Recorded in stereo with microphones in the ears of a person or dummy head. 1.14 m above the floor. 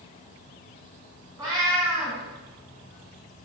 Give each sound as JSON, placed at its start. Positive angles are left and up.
{"t": 1.4, "sound": "a cat meowing", "side_deg": -20, "distance_m": 1.1}